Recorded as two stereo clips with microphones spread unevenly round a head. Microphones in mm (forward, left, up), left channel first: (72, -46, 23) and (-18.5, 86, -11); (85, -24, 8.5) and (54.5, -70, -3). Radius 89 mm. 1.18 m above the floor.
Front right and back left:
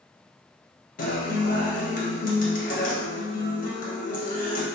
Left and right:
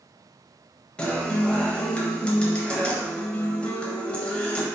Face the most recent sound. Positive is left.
turn(degrees=-15)